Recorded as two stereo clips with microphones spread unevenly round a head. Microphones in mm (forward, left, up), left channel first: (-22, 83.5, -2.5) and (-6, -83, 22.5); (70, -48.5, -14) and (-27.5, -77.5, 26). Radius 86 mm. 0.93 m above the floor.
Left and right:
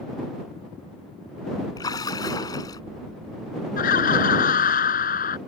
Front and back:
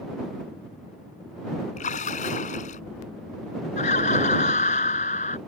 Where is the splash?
25° left.